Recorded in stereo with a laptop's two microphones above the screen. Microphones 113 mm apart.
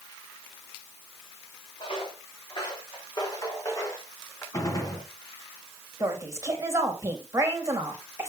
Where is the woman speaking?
25° right (ahead or behind), 1.8 m.